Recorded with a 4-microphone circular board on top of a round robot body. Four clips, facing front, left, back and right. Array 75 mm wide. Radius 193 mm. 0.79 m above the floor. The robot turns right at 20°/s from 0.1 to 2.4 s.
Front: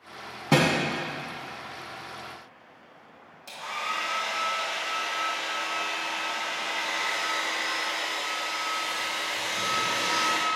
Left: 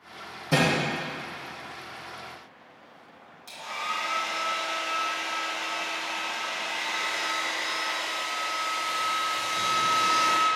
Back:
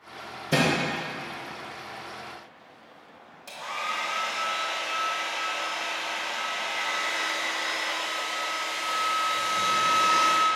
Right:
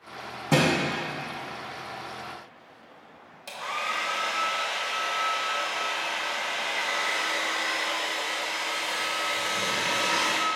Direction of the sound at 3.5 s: 90° right.